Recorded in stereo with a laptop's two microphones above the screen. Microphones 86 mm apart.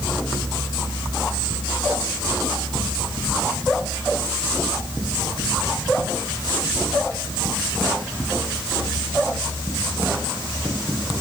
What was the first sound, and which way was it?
Only background noise.